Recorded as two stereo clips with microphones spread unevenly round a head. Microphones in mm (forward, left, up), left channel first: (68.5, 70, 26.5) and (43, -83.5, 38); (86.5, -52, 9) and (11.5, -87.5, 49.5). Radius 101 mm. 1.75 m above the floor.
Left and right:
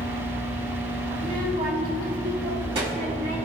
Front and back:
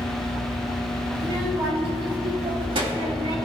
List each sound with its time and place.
1.1 s a child speaking: 150° right, 3.5 m; by 3.4 s 170° right, 2.5 m